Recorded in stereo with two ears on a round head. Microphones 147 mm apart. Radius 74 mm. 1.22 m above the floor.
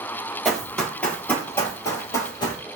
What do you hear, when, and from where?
0.5 s running footsteps: centre (ahead or behind), 1.3 m; by 2.6 s 30° left (ahead or behind), 1.4 m